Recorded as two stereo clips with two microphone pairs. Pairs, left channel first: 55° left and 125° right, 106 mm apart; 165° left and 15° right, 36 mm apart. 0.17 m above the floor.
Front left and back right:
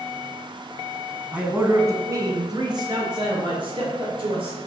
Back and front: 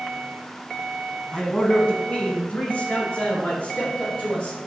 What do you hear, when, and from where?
1.3 s a man speaking: straight behind, 1.4 m; by 4.6 s 150° right, 3.5 m